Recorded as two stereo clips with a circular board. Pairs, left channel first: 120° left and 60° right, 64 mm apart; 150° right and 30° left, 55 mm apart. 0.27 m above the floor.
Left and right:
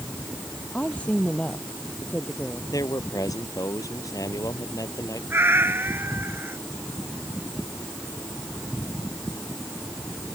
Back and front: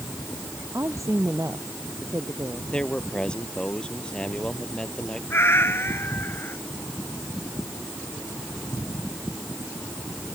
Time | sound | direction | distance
0.7 | a woman speaking | 50° left | ?
2.7 | a man speaking | 135° left | ?
5.3 | a cat meowing | 110° right | ?